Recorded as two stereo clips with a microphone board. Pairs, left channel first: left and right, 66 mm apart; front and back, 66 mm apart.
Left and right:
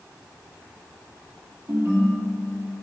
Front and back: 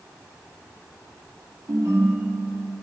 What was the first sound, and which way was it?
A ringtone, 140° right.